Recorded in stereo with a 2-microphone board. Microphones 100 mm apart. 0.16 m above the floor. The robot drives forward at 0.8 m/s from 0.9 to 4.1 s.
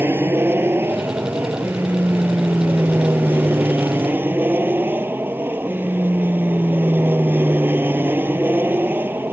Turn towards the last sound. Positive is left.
turn(degrees=-20)  # may be behind; listen again after turning